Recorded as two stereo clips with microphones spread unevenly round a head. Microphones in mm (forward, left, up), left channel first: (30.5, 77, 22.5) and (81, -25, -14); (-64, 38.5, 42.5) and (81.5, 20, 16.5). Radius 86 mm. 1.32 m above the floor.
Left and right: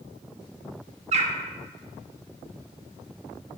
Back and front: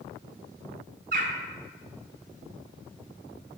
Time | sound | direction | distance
1.1 | a bird | 45° right | 0.9 m